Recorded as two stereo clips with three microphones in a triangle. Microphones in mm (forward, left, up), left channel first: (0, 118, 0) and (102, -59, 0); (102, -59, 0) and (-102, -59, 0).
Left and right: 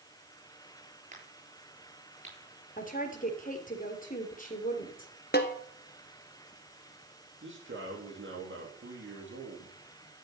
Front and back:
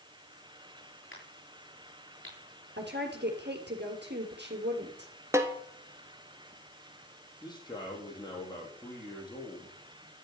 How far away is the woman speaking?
About 3 m.